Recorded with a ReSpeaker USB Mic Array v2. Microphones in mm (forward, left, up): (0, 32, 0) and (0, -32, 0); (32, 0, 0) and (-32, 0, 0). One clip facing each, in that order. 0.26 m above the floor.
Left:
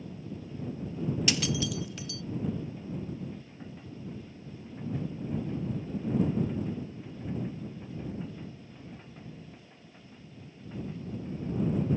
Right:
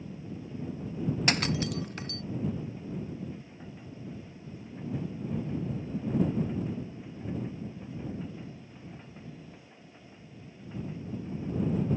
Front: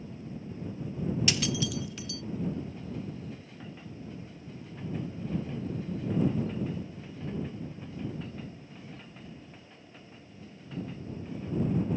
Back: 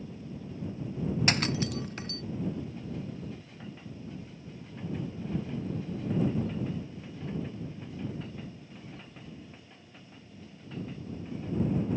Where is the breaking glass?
135° right.